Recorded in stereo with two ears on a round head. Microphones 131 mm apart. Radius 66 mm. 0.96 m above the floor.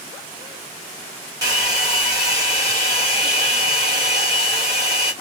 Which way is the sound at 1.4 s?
25° right (ahead or behind).